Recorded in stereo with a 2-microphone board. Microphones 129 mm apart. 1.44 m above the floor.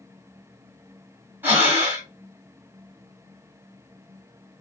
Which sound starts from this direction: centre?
Breathing, at 1.4 s.